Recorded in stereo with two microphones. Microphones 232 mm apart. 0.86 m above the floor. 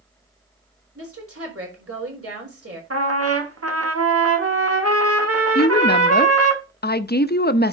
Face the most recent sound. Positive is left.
turn(degrees=45)  # may be behind; listen again after turning